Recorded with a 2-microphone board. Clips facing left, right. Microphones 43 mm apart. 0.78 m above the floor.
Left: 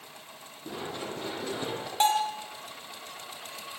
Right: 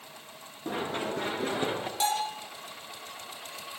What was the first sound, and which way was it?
Running footsteps, 35° right (ahead or behind).